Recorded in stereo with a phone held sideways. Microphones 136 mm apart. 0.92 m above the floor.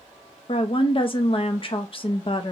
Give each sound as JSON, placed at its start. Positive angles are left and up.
{"t": 0.5, "sound": "a woman speaking", "side_deg": 40, "distance_m": 0.7}